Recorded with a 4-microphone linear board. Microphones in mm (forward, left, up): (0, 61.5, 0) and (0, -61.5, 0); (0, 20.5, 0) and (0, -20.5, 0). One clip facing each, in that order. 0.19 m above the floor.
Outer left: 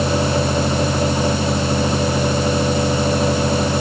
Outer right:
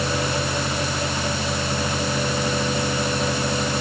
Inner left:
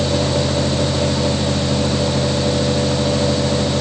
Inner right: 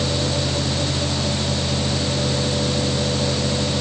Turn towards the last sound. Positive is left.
No sound to turn to.